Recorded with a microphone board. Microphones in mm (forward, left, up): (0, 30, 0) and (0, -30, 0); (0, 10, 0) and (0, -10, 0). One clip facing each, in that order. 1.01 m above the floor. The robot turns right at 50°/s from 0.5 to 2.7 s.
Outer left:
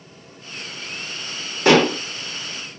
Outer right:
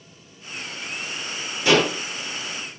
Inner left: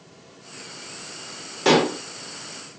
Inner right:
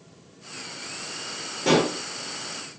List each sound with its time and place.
1.6 s dishes clattering: 55° left (ahead or behind), 0.8 m; by 2.0 s 35° left (ahead or behind), 0.8 m